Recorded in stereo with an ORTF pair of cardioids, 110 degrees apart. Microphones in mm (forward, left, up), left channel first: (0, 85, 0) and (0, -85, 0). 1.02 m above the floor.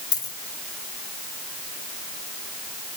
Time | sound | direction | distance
0.1 | a dropped coin | 20° left | 2.5 m